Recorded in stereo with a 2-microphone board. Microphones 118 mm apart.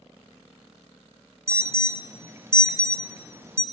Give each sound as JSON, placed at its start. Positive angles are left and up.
{"t": 1.5, "sound": "an alarm", "side_deg": -20, "distance_m": 0.7}